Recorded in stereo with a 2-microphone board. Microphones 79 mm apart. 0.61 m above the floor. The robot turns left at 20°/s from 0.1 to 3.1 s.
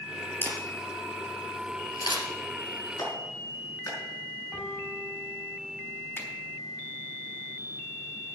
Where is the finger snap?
30° left (ahead or behind), 4.5 m.